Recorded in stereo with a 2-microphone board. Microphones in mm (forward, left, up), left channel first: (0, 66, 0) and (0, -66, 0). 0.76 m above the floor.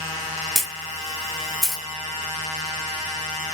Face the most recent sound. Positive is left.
turn(degrees=0)  # may be behind; listen again after turning